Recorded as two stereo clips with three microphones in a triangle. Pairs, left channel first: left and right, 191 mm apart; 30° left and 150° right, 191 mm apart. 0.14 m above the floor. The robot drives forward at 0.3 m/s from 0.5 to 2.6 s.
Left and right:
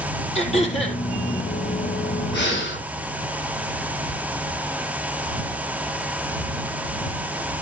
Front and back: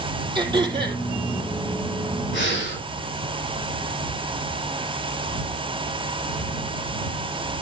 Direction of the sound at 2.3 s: 60° left.